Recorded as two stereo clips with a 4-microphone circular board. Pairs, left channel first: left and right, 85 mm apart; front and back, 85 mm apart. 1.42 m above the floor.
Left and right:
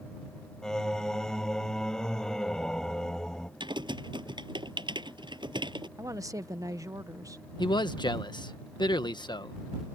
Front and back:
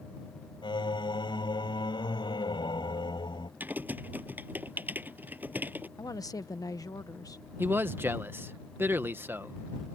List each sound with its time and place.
0.6 s singing: 5° left
3.6 s typing on a keyboard: 110° right
6.0 s a woman speaking: 45° right
7.6 s a man speaking: 115° left